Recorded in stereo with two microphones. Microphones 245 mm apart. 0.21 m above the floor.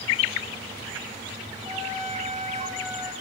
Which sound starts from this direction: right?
A trumpet, at 1.6 s.